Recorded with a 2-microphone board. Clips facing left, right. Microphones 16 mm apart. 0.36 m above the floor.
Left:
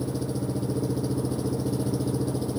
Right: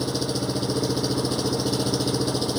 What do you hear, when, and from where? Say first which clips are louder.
0.0 s an engine running: right 4 dB; 60° right (ahead or behind)